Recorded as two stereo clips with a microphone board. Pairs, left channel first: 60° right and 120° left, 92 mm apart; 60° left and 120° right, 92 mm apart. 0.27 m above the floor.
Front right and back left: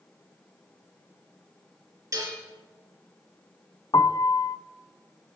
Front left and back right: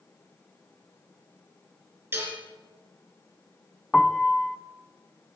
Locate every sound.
2.1 s dishes clattering: 175° left, 4 m
3.9 s a piano: 25° right, 0.6 m